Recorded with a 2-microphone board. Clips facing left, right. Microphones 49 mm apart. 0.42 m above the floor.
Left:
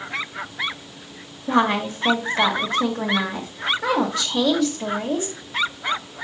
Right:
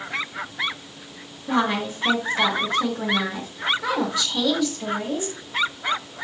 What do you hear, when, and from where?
1.5 s a woman speaking: 45° left (ahead or behind), 1.5 m